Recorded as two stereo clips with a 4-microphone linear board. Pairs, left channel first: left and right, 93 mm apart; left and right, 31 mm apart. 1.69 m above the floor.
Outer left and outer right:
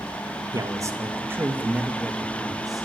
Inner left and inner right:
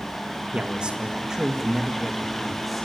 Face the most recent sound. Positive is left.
turn(degrees=0)  # may be behind; listen again after turning